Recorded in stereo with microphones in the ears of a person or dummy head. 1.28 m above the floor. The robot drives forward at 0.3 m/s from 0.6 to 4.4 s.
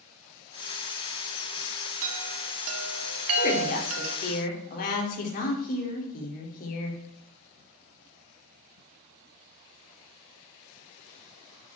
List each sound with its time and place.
2.0 s a chime: 65° right (ahead or behind), 2.0 m; by 4.2 s 75° right (ahead or behind), 1.8 m
3.4 s a woman speaking: 50° left (ahead or behind), 3.5 m